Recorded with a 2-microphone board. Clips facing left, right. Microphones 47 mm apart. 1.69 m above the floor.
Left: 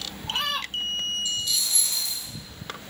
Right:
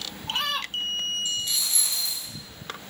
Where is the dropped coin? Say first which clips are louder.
Left 1 dB; 30° right (ahead or behind), 1.8 m.